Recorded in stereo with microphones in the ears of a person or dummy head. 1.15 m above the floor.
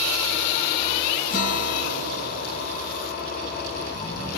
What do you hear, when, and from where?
1.3 s a guitar: 55° left (ahead or behind), 0.8 m